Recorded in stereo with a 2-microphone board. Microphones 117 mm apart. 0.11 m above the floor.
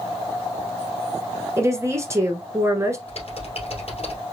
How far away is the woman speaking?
About 1.3 m.